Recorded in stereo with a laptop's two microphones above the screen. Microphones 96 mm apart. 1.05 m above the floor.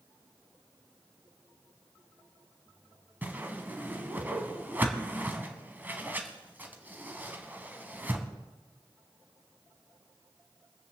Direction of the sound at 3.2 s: 20° right (ahead or behind).